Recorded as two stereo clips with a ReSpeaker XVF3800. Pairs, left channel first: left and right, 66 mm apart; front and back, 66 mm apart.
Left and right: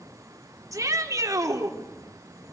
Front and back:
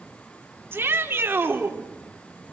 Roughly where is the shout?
Behind right.